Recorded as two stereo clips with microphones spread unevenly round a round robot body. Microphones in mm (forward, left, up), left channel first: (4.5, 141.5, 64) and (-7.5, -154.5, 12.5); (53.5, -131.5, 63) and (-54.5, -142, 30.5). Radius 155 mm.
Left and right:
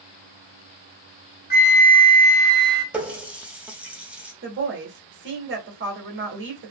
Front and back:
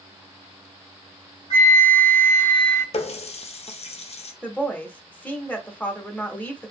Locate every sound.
1.5 s a flute: 30° left, 0.9 m
2.9 s a running tap: 20° right, 0.6 m
4.4 s a woman speaking: 85° right, 1.3 m